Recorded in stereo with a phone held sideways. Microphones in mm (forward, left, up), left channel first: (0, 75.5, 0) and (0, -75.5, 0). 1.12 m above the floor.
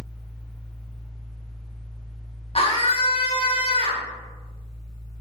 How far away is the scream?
About 0.8 m.